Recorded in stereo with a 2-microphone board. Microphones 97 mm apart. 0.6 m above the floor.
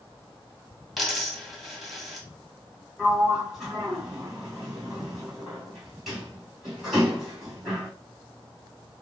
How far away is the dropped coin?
About 2 m.